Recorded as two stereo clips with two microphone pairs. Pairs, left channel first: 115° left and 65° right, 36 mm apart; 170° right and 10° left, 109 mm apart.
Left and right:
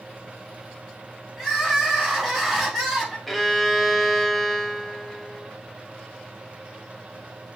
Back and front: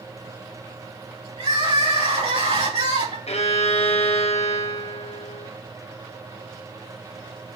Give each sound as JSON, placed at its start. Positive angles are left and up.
{"t": 1.4, "sound": "crying", "azimuth_deg": 25, "distance_m": 3.0}
{"t": 3.3, "sound": "a violin", "azimuth_deg": -155, "distance_m": 1.0}